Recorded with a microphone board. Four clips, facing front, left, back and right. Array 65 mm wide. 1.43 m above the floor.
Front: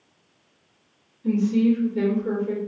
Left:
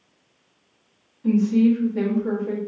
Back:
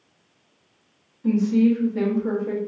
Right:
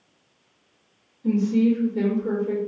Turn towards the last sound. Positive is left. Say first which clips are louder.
# left 2 dB, back 1 dB
turn(degrees=150)